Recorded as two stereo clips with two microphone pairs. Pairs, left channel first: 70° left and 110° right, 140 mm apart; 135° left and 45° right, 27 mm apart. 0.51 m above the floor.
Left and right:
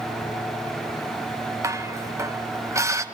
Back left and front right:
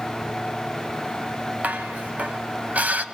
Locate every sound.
1.6 s dishes clattering: 40° right, 1.8 m